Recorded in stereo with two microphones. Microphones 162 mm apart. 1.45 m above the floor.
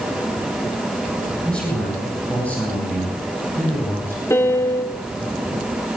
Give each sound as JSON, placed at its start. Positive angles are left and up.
{"t": 1.4, "sound": "a man speaking", "side_deg": 5, "distance_m": 8.5}
{"t": 4.3, "sound": "a piano", "side_deg": 15, "distance_m": 2.0}